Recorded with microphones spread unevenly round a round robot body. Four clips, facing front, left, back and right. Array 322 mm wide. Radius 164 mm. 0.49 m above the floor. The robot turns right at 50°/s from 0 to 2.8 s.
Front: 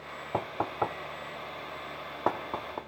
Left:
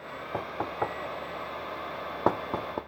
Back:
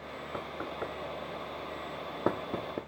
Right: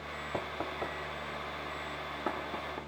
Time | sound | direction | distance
0.3 | knocking | straight ahead | 0.8 m